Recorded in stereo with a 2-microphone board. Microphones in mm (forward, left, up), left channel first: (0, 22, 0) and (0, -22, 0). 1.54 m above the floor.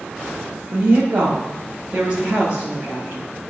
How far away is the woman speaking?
About 0.6 m.